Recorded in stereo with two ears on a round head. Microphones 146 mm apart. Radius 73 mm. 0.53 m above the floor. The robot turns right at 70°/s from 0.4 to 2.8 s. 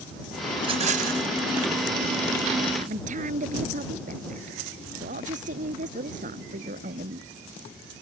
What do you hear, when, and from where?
0.6 s a rattle: 155° right; by 1.3 s 105° right
2.8 s a woman speaking: 45° right (ahead or behind); by 7.3 s 50° right (ahead or behind)